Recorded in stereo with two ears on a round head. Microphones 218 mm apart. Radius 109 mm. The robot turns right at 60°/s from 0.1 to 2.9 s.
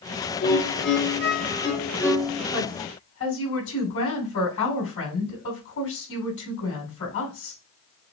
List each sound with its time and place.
0.4 s a violin: 65° left, 1.1 m; by 2.4 s 170° right, 1.1 m
2.5 s a woman speaking: 30° left (ahead or behind), 3 m; by 7.6 s 50° left (ahead or behind), 3 m